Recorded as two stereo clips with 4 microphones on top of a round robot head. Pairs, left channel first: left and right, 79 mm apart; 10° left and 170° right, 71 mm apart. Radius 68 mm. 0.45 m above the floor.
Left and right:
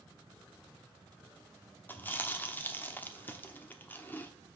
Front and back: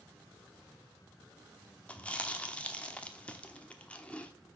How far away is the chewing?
About 1.1 m.